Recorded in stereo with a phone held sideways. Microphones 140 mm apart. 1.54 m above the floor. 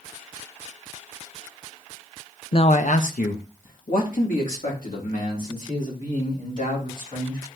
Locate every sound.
2.5 s a man speaking: 40° left (ahead or behind), 0.5 m; by 7.4 s 85° left, 6 m